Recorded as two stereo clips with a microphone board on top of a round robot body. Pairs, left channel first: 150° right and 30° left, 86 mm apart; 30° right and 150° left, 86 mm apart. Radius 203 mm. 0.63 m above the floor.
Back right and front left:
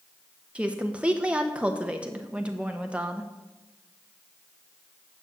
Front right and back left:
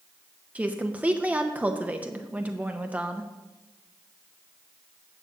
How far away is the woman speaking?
About 1.1 m.